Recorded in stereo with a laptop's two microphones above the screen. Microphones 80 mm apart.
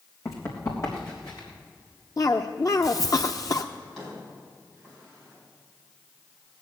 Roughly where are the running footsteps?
Left.